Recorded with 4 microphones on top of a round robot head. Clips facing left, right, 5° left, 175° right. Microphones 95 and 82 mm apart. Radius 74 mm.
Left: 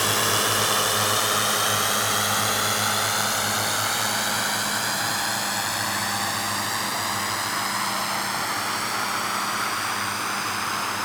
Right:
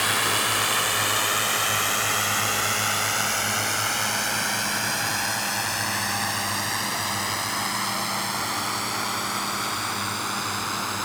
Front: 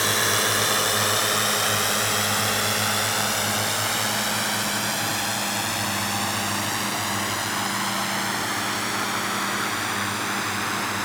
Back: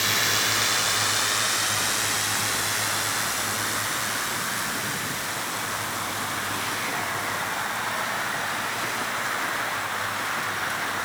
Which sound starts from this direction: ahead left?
A drone, at 0.0 s.